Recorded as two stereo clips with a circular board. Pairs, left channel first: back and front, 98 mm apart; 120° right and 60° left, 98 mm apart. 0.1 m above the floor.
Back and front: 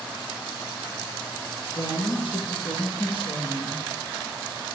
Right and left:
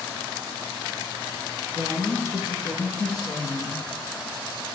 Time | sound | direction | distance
1.8 | a woman speaking | 175° left | 2.5 m